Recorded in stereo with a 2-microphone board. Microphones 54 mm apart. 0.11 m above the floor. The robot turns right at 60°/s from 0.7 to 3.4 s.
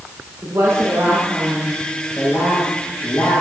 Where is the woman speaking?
75° right, 9 m; by 3.4 s 90° left, 9 m.